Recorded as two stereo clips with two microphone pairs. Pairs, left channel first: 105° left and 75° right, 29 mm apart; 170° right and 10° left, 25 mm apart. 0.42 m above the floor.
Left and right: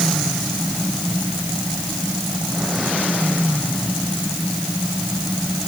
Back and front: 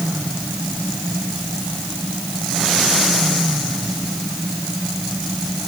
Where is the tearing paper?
No tearing paper in this recording.